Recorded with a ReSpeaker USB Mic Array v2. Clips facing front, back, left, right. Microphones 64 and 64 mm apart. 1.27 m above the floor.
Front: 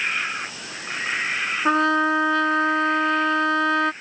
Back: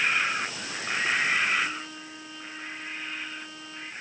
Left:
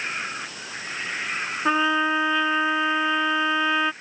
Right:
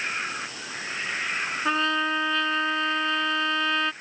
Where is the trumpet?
15° left.